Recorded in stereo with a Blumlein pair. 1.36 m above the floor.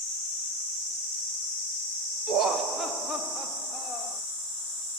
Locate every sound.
2.3 s laughter: 25° right, 0.9 m; by 4.2 s 5° left, 1.8 m